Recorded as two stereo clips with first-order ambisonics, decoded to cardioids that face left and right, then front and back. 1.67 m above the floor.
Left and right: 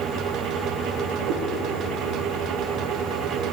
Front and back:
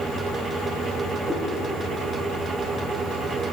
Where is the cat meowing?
100° right, 5.5 m.